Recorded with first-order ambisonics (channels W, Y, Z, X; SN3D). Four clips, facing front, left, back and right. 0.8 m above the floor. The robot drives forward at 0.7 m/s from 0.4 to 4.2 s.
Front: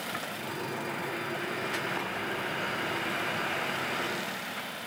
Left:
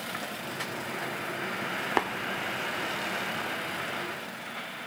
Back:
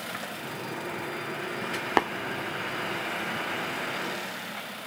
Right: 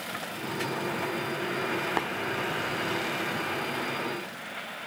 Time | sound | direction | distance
2.0 | tapping | 165° left | 0.6 m